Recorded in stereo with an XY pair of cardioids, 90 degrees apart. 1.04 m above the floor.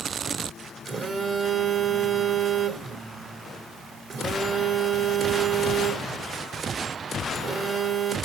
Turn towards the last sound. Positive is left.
turn(degrees=-55)